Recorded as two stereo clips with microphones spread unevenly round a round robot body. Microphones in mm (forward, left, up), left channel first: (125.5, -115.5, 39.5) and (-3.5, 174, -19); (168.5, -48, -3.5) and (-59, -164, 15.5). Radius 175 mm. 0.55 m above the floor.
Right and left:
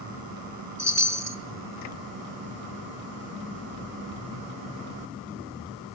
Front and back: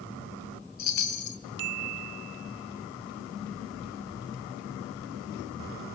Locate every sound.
0.8 s a chime: 35° left, 2.5 m